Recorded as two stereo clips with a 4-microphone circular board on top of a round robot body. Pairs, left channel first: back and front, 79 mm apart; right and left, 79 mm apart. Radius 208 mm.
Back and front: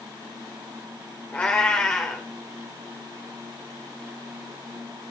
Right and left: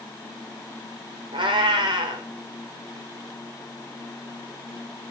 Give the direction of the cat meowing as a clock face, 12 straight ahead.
8 o'clock.